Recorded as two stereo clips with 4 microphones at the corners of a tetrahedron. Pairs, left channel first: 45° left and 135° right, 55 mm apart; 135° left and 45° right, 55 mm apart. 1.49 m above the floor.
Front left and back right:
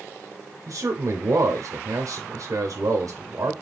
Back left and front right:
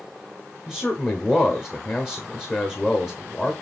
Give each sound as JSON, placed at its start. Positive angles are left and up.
{"t": 0.7, "sound": "a man speaking", "azimuth_deg": -160, "distance_m": 0.8}